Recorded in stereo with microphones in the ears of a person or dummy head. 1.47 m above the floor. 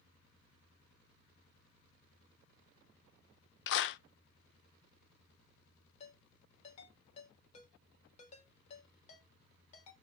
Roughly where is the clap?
Left.